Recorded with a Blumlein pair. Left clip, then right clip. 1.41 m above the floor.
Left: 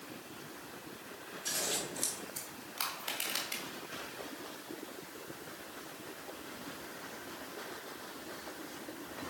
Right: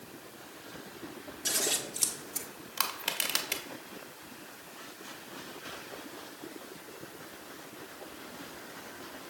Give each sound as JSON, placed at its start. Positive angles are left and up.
{"t": 1.4, "sound": "scissors", "azimuth_deg": -45, "distance_m": 1.2}
{"t": 2.8, "sound": "crushing", "azimuth_deg": -35, "distance_m": 1.4}